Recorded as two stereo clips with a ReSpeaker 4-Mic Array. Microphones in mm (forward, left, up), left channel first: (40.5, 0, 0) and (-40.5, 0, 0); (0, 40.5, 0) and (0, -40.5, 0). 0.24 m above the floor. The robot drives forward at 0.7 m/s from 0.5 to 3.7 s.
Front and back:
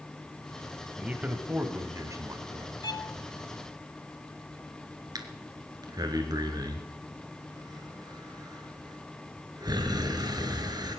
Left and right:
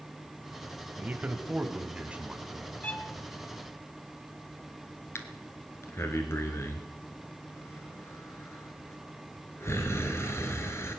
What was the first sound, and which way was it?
A man speaking, 120° right.